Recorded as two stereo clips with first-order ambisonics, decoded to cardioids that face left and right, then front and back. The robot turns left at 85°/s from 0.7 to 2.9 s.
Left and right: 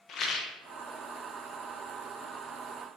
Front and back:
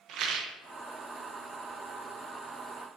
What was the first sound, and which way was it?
A rattle, 140° left.